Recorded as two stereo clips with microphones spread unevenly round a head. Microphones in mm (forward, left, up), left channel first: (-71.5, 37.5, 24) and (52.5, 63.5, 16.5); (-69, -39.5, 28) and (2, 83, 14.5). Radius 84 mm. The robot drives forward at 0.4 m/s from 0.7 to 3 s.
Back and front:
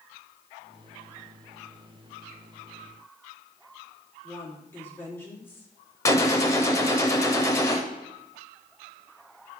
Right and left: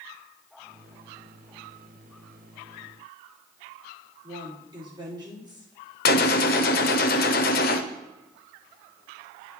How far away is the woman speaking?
About 3.5 m.